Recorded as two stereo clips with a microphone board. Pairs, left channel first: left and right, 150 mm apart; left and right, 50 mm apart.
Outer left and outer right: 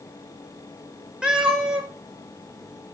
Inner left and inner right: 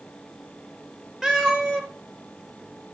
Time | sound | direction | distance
1.2 | a cat meowing | 5° right (ahead or behind) | 2 m